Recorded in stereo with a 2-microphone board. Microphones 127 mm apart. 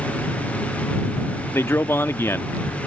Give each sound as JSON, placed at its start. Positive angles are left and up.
{"t": 1.5, "sound": "a man speaking", "side_deg": 20}